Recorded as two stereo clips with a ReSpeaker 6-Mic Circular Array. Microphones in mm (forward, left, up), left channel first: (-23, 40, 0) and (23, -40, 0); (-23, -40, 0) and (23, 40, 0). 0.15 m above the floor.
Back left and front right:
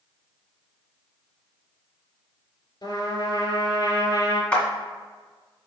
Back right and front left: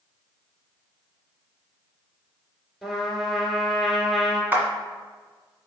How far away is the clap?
About 1.4 m.